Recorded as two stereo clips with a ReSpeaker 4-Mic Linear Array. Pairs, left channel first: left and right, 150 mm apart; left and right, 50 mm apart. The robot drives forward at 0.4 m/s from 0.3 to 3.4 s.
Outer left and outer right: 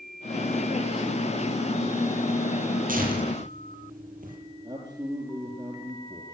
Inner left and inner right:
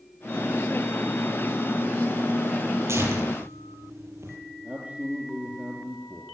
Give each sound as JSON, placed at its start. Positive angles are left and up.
{"t": 2.9, "sound": "tearing paper", "side_deg": -65, "distance_m": 9.0}
{"t": 4.6, "sound": "a man speaking", "side_deg": -30, "distance_m": 5.0}